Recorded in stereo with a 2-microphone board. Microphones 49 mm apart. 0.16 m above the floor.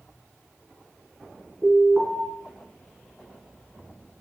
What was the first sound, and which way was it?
An alarm, 35° right (ahead or behind).